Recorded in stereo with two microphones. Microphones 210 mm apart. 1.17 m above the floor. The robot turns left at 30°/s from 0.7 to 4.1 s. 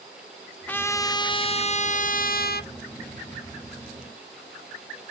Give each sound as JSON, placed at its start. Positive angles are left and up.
{"t": 0.7, "sound": "a trumpet", "azimuth_deg": 170, "distance_m": 0.8}